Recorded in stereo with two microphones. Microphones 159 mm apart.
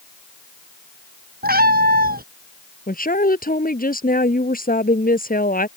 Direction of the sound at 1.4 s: 70° right (ahead or behind).